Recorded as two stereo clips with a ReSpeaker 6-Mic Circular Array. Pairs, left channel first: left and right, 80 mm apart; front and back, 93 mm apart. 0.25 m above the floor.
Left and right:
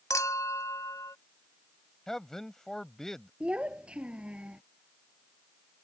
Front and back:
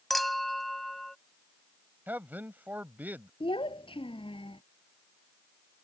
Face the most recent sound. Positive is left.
turn(degrees=-10)